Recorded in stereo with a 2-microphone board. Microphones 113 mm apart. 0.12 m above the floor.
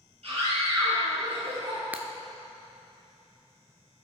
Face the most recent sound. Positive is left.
turn(degrees=-15)  # may be behind; listen again after turning